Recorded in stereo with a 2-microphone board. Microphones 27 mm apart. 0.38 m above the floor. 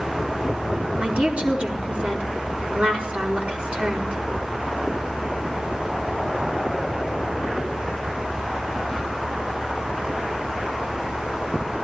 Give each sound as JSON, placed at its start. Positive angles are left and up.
{"t": 1.0, "sound": "a woman speaking", "side_deg": -55, "distance_m": 4.0}